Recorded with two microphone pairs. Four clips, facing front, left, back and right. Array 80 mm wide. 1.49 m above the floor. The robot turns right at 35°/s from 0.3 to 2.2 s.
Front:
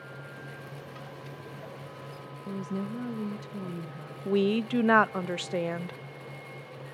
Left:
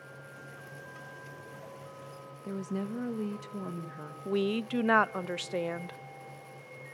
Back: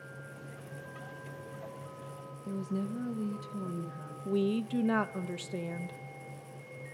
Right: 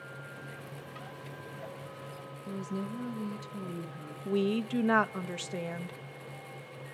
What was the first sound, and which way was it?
A woman speaking, 70° left.